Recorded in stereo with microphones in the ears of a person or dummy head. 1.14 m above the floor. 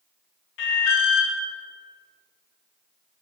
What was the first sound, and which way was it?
An alarm, 70° left (ahead or behind).